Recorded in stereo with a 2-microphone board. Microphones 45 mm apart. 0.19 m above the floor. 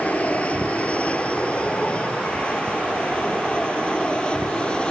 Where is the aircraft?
35° left (ahead or behind); by 4.9 s 25° left (ahead or behind).